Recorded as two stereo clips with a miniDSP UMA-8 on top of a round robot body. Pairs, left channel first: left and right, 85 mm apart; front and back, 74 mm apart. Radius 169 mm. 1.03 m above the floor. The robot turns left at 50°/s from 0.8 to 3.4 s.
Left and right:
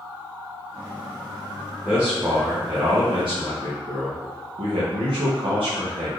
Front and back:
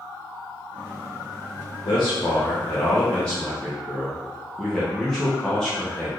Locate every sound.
1.9 s a man speaking: 5° right, 0.9 m; by 6.1 s 85° right, 0.9 m